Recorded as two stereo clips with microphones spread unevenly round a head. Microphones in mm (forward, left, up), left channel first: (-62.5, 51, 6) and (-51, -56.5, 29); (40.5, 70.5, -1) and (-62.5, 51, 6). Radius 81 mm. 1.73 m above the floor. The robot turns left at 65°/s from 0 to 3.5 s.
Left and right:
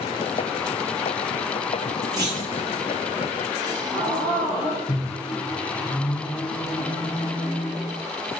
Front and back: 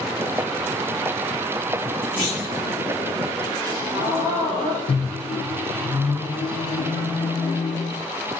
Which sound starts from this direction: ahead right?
A clunk, at 2.2 s.